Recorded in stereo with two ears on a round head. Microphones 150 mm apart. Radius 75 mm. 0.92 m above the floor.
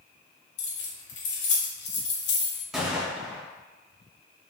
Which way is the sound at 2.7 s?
5° right (ahead or behind).